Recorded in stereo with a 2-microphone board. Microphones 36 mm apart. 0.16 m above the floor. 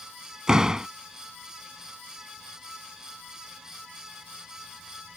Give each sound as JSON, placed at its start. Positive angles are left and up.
{"t": 0.5, "sound": "a door slam", "side_deg": -20}